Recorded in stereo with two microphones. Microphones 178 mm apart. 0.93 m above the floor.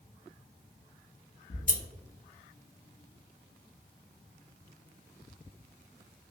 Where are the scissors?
50° left (ahead or behind), 0.6 m.